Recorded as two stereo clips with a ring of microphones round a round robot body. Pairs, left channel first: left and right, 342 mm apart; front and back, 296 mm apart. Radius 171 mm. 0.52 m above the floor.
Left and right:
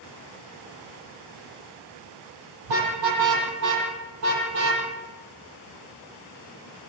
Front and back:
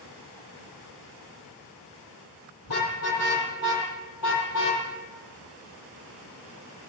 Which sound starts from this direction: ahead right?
A car horn, at 2.6 s.